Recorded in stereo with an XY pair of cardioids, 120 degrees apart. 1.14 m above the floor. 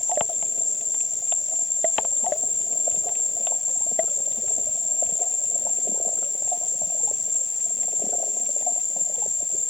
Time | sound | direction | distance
0.0 | an insect | 15° left | ?